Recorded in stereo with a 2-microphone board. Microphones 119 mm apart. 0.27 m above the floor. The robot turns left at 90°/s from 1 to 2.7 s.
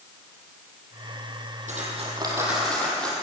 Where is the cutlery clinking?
95° right, 6 m; by 3.1 s 170° left, 6 m.